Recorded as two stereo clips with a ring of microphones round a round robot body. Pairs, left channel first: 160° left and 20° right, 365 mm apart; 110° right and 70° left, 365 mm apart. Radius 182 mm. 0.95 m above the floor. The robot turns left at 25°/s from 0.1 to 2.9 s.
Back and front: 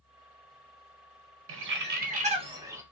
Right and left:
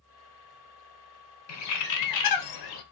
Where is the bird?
70° right, 0.6 m; by 2.8 s 105° right, 0.6 m.